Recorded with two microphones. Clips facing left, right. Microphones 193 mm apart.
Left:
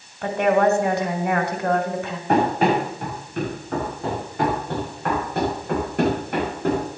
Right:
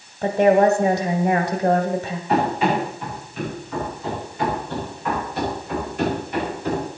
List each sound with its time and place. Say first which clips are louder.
0.2 s a woman speaking: right 3 dB; 20° right (ahead or behind), 1.3 m
2.3 s running footsteps: left 2 dB; 55° left (ahead or behind), 7 m; by 6.8 s 60° left (ahead or behind), 9 m